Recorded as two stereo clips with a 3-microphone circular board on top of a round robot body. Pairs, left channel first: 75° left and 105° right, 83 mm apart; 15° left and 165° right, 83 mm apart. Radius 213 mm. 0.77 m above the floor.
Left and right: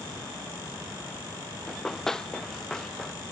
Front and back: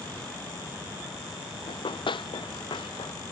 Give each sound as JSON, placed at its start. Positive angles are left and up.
{"t": 1.7, "sound": "running footsteps", "azimuth_deg": -10}